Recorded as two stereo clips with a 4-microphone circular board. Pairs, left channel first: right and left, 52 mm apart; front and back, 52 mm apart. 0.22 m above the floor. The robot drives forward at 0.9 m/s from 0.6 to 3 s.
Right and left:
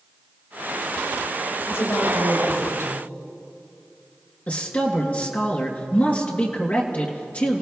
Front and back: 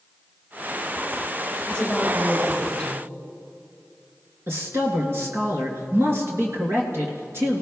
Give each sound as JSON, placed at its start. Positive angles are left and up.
{"t": 1.7, "sound": "a woman speaking", "azimuth_deg": -70, "distance_m": 4.5}
{"t": 4.5, "sound": "a man speaking", "azimuth_deg": -145, "distance_m": 2.5}